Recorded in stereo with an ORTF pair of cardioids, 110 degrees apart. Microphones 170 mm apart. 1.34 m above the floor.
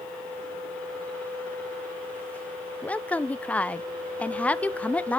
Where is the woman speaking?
10° left, 0.5 m.